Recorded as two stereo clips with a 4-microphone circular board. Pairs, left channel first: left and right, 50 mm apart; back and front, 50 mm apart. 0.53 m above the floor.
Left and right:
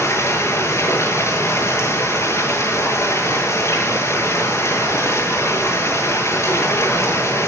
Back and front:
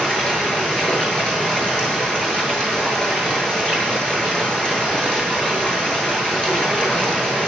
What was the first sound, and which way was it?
Running water, 110° left.